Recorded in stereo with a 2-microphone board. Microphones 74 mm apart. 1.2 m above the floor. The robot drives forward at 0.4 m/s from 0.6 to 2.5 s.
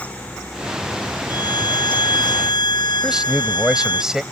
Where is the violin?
85° left; by 4.0 s 90° left.